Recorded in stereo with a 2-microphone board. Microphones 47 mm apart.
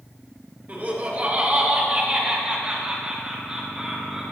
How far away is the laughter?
About 3 m.